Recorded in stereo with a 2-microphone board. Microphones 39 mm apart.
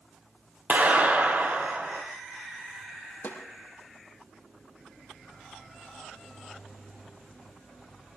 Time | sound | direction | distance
0.7 | a clap | 45° right (ahead or behind) | 3 m
3.2 | a snare drum | 75° left (ahead or behind) | 5 m